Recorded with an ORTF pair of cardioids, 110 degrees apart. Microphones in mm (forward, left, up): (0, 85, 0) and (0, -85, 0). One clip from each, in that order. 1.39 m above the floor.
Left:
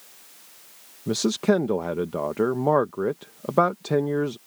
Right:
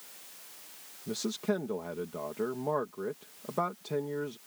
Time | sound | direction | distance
1.1 | a man speaking | 55° left | ?